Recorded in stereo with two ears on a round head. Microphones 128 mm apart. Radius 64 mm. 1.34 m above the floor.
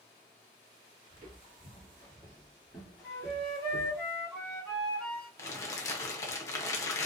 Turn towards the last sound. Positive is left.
turn(degrees=20)  # may be behind; listen again after turning